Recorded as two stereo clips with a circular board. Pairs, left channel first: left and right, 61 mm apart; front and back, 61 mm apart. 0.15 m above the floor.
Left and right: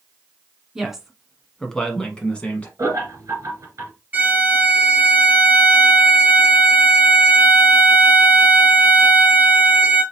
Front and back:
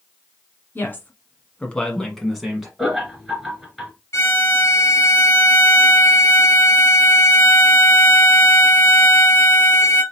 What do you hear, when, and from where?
0.8 s a woman speaking: 15° right, 1.3 m; by 2.7 s 105° left, 1.1 m
2.8 s laughter: 90° right, 2.5 m
4.1 s a violin: 30° right, 2.5 m